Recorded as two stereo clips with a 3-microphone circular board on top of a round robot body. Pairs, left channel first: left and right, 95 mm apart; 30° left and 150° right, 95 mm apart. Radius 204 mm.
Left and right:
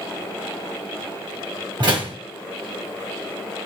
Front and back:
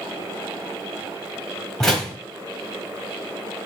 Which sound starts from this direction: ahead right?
A door slam, at 1.8 s.